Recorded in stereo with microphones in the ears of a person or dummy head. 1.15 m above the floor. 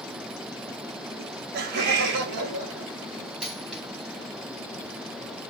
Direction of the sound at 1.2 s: 40° right (ahead or behind).